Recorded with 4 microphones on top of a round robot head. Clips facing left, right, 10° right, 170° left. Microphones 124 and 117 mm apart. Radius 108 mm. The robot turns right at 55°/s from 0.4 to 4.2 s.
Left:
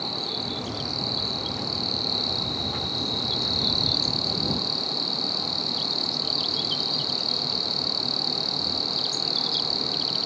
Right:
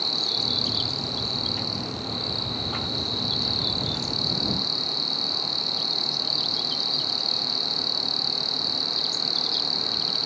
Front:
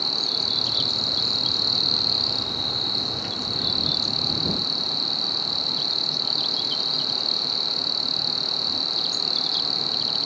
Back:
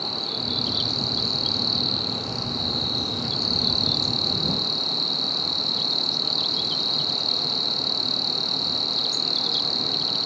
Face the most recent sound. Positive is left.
turn(degrees=160)